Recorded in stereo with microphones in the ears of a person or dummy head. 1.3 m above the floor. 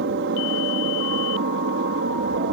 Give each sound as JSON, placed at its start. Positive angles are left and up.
{"t": 0.0, "sound": "an aircraft", "side_deg": -60}